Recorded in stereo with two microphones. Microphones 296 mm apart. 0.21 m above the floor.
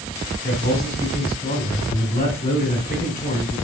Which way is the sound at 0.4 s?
35° left (ahead or behind).